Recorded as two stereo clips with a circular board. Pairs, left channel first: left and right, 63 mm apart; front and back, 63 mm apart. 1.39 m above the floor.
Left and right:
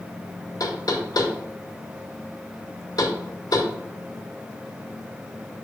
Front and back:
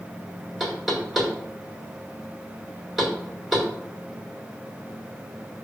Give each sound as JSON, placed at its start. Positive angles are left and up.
{"t": 0.6, "sound": "knocking", "azimuth_deg": 90, "distance_m": 2.0}